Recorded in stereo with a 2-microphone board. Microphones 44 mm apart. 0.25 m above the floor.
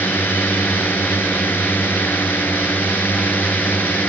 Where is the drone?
50° left (ahead or behind).